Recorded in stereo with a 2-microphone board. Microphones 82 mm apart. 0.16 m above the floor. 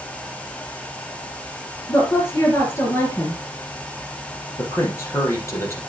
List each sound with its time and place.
1.9 s a woman speaking: 30° left (ahead or behind), 3.5 m
4.6 s a man speaking: 30° left (ahead or behind), 4.5 m